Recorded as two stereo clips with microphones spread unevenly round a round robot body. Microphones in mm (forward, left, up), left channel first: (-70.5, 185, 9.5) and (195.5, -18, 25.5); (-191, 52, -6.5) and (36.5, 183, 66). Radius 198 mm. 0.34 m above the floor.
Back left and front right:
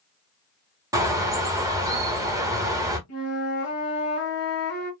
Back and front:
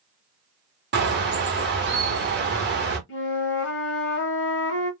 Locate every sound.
0.9 s a bird: 35° left, 1.1 m
3.1 s a flute: 175° right, 1.0 m